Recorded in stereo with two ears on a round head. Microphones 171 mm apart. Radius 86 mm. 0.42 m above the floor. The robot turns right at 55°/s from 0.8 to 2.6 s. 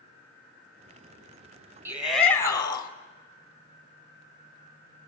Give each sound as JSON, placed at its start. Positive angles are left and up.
{"t": 1.9, "sound": "a shout", "azimuth_deg": -15, "distance_m": 2.0}